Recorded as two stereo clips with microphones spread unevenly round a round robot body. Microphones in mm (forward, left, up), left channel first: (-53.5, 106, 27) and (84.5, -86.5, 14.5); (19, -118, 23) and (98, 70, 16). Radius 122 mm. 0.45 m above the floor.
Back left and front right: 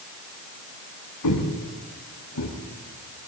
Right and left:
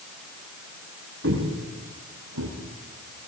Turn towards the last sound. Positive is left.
turn(degrees=90)